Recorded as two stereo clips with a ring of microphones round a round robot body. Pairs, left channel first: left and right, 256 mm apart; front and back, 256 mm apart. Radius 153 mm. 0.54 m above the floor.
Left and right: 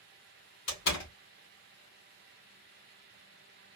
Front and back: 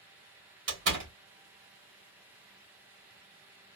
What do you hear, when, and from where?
0.7 s a door slam: 135° left, 2 m